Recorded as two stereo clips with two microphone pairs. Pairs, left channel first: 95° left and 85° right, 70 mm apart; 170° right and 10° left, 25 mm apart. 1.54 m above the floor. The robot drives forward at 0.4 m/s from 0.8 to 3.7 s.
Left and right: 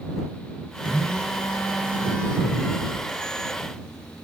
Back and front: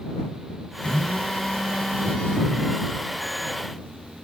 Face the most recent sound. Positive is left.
turn(degrees=175)